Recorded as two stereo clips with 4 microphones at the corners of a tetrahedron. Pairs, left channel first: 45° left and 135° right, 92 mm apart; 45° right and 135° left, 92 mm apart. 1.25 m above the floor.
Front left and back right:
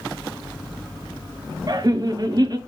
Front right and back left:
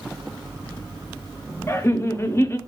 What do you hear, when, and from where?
1.7 s laughter: 100° right, 0.5 m